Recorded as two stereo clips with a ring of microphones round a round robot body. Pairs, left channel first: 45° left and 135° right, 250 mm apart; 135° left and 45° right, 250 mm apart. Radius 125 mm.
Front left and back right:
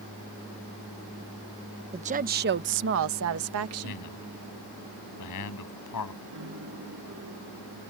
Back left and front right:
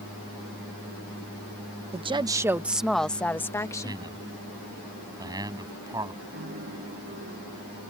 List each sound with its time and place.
1.9 s a woman speaking: 90° right; by 4.0 s 150° right
3.8 s a man speaking: 30° left
6.3 s a piano: 95° right